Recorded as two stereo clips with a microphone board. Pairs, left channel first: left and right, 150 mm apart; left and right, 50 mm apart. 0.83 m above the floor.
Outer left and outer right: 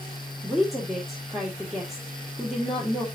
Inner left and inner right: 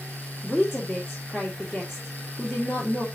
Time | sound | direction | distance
0.4 | a woman speaking | centre (ahead or behind) | 2.0 m